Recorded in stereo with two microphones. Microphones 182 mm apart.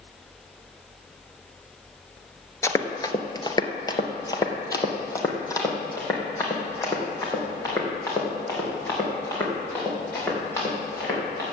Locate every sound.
2.6 s running footsteps: 15° left (ahead or behind), 0.9 m